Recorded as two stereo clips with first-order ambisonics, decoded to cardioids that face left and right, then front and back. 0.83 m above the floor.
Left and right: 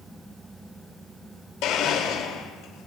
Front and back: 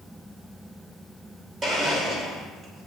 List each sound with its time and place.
1.6 s a blender: 115° left, 2.5 m